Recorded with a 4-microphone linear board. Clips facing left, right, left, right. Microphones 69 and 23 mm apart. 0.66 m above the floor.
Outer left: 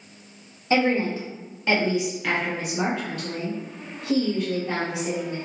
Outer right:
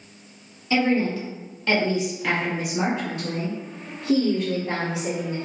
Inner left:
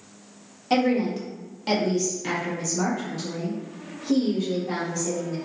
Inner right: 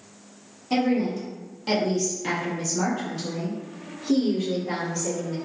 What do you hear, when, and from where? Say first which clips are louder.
0.7 s a woman speaking: even, inner left 1 dB; 35° left (ahead or behind), 1.1 m; by 5.4 s 35° right (ahead or behind), 2.5 m